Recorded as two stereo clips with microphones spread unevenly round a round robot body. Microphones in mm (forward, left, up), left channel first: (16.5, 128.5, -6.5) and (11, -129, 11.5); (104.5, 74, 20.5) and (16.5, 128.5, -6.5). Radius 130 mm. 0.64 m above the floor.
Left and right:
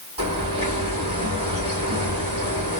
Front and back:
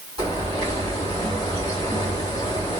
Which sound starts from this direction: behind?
A bird, at 0.2 s.